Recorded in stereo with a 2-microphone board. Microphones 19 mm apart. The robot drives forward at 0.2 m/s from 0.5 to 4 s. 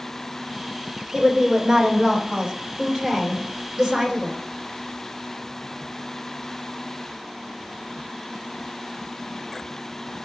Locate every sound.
1.1 s a woman speaking: 40° right (ahead or behind), 1.8 m; by 4.4 s 35° right (ahead or behind), 1.8 m